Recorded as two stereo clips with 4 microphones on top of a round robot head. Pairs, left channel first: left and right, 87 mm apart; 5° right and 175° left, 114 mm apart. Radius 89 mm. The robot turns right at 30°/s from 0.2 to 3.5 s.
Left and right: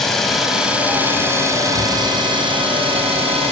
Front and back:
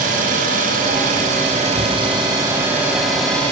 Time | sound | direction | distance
0.0 | an engine running | 175° left | 3.5 m